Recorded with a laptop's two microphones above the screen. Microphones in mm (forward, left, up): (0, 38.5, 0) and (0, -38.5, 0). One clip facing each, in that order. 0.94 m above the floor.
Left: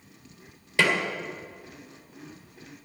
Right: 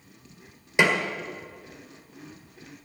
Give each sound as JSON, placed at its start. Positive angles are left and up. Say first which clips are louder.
{"t": 0.8, "sound": "a snare drum", "louder": "right 2 dB", "side_deg": -20, "distance_m": 1.8}